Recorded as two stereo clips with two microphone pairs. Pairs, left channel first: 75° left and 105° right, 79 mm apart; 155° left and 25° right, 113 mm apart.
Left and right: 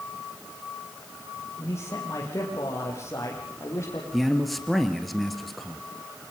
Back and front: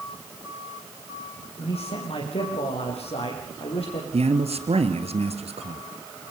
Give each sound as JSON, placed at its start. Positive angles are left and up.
{"t": 1.6, "sound": "a man speaking", "azimuth_deg": 130, "distance_m": 7.0}
{"t": 4.1, "sound": "a man speaking", "azimuth_deg": -10, "distance_m": 3.0}